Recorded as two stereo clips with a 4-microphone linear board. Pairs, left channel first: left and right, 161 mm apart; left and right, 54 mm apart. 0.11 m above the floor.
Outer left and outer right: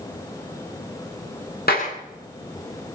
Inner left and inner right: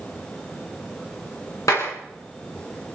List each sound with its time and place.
1.7 s a clap: 75° left (ahead or behind), 9.5 m